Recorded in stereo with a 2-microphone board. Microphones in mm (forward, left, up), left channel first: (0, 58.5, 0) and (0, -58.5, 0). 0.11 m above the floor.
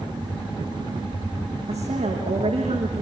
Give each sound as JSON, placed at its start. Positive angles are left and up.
{"t": 1.7, "sound": "a woman speaking", "side_deg": -70, "distance_m": 6.0}